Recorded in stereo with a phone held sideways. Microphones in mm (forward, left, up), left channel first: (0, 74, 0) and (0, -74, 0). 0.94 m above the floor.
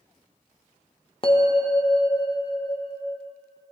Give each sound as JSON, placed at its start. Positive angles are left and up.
{"t": 1.2, "sound": "a bell", "side_deg": 35, "distance_m": 0.7}